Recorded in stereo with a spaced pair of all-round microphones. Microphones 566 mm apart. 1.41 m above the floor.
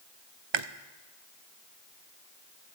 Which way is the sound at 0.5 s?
55° right (ahead or behind).